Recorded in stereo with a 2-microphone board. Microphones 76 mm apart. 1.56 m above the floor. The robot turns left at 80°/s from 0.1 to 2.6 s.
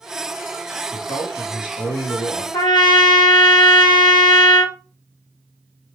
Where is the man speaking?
175° left, 1.3 m; by 2.4 s 55° left, 1.3 m.